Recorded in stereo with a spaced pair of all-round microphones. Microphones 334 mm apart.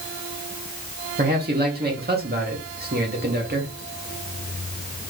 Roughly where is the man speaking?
Right.